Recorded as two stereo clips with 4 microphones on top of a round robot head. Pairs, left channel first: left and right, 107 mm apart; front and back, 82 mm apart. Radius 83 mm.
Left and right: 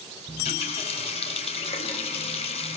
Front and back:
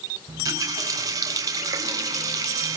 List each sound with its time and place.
0.3 s a running tap: 135° left, 4 m